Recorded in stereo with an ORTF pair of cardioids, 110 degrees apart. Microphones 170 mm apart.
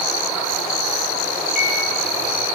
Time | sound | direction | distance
1.6 | a microwave | 55° left | 6.5 m